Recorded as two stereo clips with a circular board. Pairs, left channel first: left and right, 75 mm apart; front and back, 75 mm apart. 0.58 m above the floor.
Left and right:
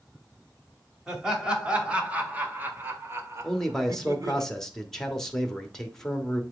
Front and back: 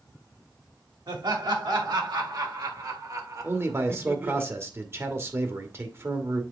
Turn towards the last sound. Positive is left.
turn(degrees=165)